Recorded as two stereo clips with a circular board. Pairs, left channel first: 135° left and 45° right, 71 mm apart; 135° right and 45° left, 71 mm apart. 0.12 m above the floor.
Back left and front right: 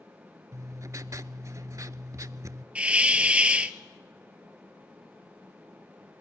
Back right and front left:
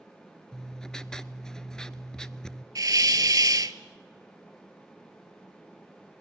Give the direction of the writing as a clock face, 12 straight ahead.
2 o'clock.